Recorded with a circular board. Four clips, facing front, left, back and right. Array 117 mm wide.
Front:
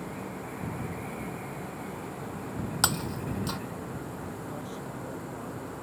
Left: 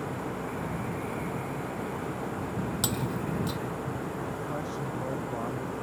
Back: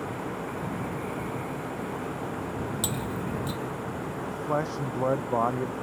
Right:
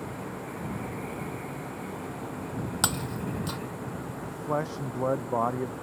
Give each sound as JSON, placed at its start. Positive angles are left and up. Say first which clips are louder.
{"t": 2.8, "sound": "breaking glass", "louder": "left 1 dB, even", "azimuth_deg": -35}
{"t": 4.3, "sound": "a man speaking", "louder": "right 3 dB, back 9 dB", "azimuth_deg": -150}